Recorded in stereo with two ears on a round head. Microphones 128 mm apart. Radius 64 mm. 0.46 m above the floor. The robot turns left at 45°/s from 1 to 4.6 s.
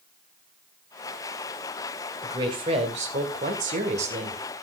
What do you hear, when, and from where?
2.2 s a woman speaking: 30° right, 2 m; by 4.4 s 130° right, 2 m